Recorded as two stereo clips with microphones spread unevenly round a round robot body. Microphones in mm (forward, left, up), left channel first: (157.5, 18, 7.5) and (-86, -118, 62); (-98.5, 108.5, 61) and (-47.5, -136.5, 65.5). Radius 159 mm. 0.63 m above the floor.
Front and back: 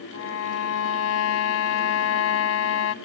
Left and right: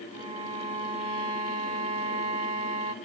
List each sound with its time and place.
0.1 s a violin: 10° right, 0.7 m